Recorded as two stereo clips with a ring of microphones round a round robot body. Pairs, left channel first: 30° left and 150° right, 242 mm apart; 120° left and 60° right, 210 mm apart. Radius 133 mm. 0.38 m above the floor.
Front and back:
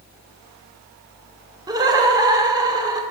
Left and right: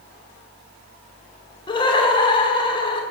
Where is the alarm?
I don't hear an alarm.